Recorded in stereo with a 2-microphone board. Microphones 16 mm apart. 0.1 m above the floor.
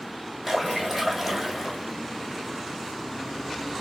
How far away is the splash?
About 1.6 m.